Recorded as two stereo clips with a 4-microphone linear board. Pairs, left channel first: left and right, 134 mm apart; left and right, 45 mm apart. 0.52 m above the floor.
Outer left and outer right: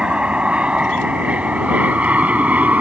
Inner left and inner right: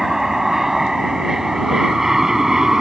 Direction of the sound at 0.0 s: 5° right (ahead or behind).